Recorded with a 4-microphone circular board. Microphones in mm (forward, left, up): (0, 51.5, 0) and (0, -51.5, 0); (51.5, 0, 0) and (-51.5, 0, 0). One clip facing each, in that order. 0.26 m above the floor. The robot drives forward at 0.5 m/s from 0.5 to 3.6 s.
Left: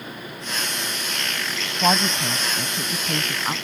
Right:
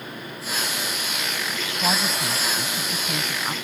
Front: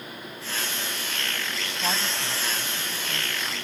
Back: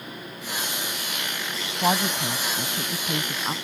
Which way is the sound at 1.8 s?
135° left.